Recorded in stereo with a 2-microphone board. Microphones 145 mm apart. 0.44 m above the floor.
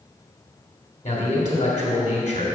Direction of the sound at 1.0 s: 60° left (ahead or behind).